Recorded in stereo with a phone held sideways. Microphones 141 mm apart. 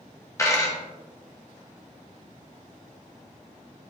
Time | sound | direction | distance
0.4 | a dropped coin | 20° left (ahead or behind) | 0.6 m